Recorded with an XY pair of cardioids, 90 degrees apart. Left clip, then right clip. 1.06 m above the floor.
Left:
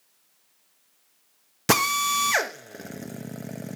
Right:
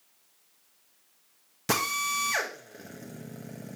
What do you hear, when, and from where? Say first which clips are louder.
1.7 s a drill: left 6 dB; 60° left, 1.0 m